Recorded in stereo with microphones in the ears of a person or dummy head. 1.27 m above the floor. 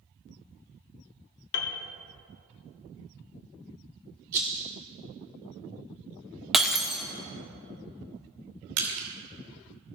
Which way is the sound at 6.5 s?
5° right (ahead or behind).